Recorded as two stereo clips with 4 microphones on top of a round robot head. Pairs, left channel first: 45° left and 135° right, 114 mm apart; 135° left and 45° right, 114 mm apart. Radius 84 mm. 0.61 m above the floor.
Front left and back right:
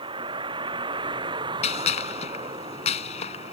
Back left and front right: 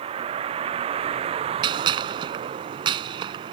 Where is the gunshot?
10° left.